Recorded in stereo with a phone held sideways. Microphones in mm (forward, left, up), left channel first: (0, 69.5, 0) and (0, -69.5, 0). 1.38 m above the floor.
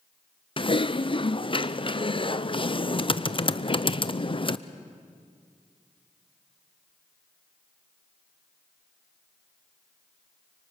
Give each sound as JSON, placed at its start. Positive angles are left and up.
{"t": 0.6, "sound": "typing on a keyboard", "side_deg": 40, "distance_m": 0.5}